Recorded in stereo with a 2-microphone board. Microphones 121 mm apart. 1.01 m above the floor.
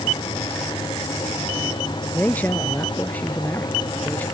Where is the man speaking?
15° left (ahead or behind).